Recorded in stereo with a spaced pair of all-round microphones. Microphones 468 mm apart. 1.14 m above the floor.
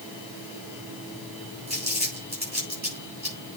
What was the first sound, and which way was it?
Crumpling, 60° right (ahead or behind).